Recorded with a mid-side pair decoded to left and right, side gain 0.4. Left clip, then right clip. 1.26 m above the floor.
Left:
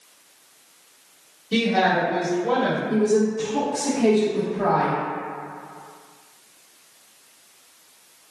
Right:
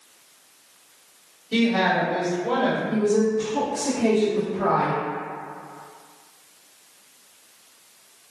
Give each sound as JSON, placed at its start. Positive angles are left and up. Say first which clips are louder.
{"t": 1.5, "sound": "a woman speaking", "louder": "left 1 dB", "azimuth_deg": 45, "distance_m": 1.6}
{"t": 2.9, "sound": "a woman speaking", "louder": "left 1 dB", "azimuth_deg": 45, "distance_m": 1.1}